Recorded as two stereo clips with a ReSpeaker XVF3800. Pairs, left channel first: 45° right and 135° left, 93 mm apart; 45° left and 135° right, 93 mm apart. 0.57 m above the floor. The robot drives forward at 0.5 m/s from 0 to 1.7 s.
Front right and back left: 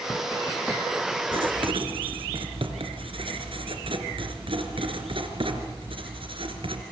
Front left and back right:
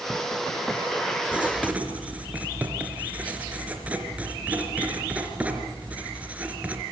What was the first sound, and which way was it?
Writing, 150° left.